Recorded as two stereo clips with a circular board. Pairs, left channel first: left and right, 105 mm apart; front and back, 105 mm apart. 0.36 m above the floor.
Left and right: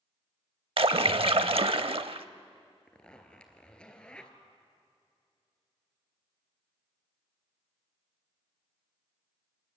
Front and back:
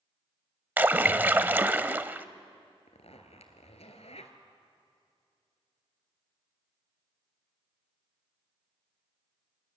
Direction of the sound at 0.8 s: 110° right.